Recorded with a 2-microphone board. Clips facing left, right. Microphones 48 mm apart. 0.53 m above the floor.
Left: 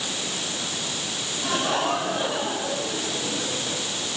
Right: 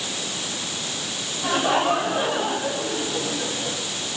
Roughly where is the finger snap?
I don't hear a finger snap.